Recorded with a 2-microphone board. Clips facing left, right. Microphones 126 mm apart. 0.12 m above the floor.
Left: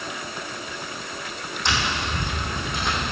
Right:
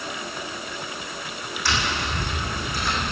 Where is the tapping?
20° left (ahead or behind), 4 m.